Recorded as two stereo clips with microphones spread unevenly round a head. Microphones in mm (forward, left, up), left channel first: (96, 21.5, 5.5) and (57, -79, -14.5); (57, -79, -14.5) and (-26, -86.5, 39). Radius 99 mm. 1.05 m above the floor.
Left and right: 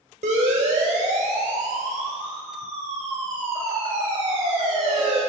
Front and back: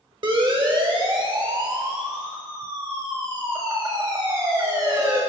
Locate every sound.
0.2 s a siren: 145° right, 4 m; by 5.2 s 110° right, 7.5 m